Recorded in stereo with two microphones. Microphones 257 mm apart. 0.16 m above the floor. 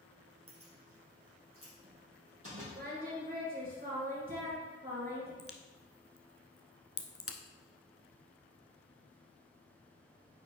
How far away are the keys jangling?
About 2.5 m.